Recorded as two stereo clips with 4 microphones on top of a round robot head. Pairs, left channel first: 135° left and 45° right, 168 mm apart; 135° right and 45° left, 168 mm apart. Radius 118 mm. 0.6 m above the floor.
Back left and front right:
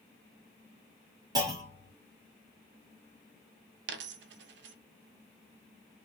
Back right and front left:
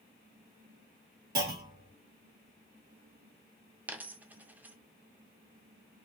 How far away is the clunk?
About 2 m.